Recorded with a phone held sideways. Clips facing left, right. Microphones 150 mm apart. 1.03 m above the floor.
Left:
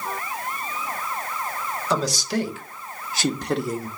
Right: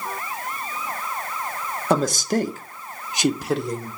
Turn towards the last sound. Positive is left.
turn(degrees=10)  # may be behind; listen again after turning